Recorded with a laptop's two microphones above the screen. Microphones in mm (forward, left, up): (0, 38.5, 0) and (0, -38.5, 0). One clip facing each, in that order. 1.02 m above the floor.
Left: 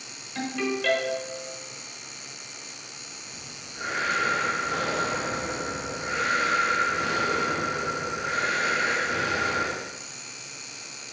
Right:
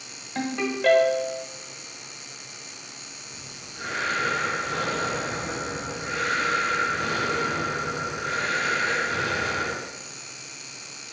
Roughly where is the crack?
No crack in this recording.